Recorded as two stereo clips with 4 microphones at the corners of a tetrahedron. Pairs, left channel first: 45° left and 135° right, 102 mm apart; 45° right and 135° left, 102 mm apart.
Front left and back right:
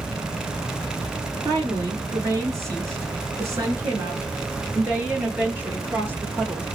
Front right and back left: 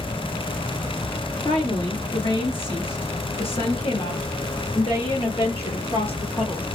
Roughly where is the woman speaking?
Right.